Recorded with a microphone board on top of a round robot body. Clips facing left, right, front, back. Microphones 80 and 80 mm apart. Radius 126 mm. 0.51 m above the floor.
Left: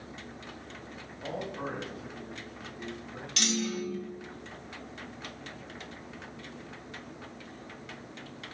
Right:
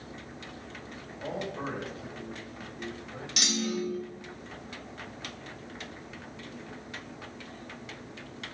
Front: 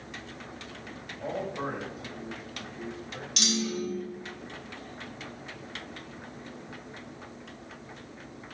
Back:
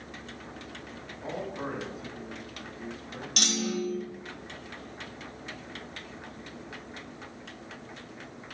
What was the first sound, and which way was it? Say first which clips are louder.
A man speaking: right 1 dB, front 2 dB; 55° right.